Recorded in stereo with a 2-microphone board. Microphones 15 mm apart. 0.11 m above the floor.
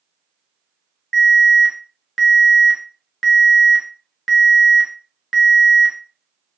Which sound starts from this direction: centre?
An alarm, at 1.1 s.